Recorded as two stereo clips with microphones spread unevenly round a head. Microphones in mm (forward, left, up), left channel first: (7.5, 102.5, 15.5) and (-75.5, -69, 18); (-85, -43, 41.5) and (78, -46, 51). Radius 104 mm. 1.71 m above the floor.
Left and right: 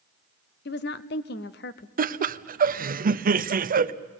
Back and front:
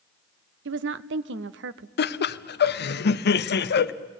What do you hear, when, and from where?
0.7 s a woman speaking: 20° left, 0.7 m
2.0 s laughter: 160° right, 0.8 m